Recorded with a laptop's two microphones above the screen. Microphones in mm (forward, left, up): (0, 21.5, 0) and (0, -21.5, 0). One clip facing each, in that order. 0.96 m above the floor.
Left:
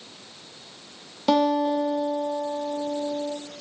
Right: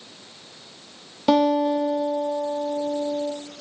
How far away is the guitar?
About 0.6 m.